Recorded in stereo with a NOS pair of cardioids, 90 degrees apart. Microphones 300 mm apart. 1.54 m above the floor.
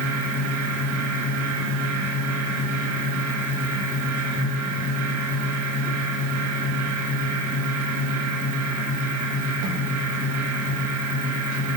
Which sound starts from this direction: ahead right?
A fan, at 0.0 s.